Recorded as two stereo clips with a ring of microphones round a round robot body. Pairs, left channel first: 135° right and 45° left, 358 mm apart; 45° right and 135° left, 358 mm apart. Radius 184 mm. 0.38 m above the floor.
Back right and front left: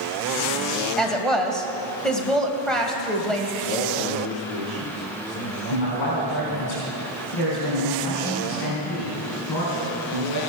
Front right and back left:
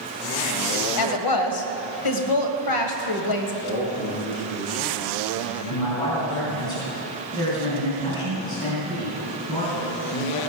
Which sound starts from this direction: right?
A man speaking, at 3.6 s.